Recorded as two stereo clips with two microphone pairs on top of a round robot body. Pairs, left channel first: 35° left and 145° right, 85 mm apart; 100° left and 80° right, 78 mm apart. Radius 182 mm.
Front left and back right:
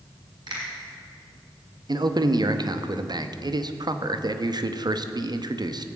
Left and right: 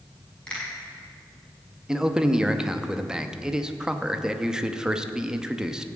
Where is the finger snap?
Straight behind, 5.5 m.